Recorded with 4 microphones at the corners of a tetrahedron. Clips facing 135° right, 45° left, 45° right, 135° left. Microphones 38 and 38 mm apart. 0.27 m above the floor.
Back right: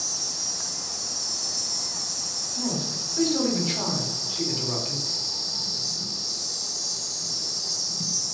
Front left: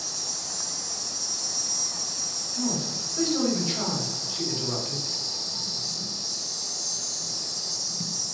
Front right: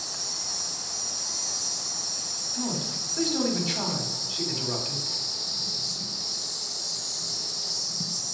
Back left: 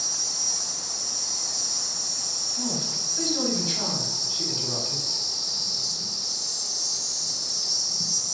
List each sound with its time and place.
0.0 s an insect: straight ahead, 1.2 m
2.5 s a man speaking: 80° right, 1.3 m